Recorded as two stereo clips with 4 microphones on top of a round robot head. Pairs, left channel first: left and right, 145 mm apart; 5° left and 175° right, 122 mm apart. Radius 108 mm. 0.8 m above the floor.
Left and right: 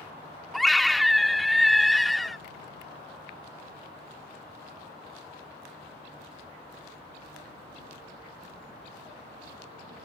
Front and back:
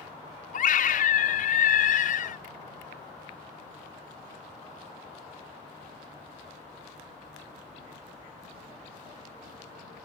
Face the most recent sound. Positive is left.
turn(degrees=0)